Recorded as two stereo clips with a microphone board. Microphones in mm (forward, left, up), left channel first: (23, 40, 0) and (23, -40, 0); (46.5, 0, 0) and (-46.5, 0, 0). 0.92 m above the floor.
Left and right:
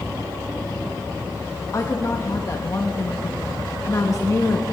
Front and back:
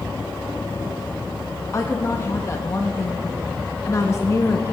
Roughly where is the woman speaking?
Ahead left.